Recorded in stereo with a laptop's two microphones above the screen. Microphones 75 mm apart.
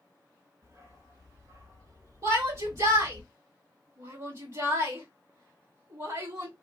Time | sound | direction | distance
0.6 | a dog barking | 45° right (ahead or behind) | 1.7 m
2.2 | a shout | 50° right (ahead or behind) | 2.5 m